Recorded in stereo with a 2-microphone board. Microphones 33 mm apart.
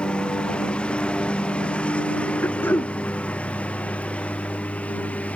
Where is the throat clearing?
85° left.